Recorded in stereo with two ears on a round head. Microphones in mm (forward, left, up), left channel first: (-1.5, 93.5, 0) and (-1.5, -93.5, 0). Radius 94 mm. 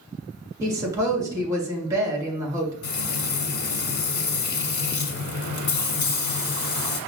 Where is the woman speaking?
15° right (ahead or behind), 1.6 m.